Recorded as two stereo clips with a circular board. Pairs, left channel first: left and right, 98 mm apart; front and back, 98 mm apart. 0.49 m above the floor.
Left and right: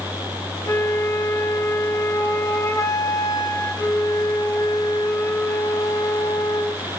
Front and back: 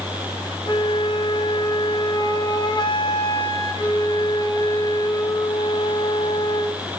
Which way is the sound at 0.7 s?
35° left.